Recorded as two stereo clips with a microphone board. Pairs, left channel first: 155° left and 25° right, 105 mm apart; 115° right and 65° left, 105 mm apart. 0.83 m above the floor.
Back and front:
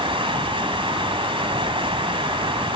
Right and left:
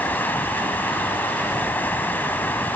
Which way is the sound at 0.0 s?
40° right.